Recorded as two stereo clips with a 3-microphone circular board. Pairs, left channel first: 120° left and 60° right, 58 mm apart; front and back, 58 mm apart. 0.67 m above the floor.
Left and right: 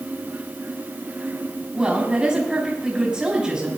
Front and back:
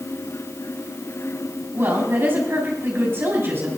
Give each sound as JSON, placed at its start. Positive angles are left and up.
{"t": 1.7, "sound": "a woman speaking", "azimuth_deg": -130, "distance_m": 4.5}